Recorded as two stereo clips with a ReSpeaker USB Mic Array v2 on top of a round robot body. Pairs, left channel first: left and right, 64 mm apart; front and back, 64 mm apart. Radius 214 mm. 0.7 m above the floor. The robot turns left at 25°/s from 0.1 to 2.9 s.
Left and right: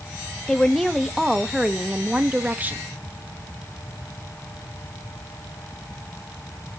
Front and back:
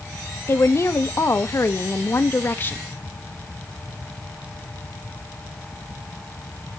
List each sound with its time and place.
0.5 s a woman speaking: 10° left, 1.2 m; by 2.8 s 45° right, 1.2 m